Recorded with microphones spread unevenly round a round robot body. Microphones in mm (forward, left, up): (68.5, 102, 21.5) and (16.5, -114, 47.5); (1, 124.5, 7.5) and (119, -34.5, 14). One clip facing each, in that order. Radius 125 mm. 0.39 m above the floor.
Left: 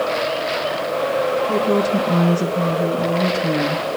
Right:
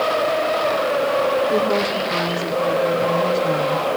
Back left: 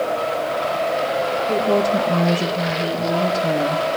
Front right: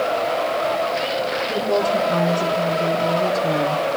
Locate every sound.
1.5 s a woman speaking: 75° left, 7.5 m; by 3.9 s 65° left, 5.5 m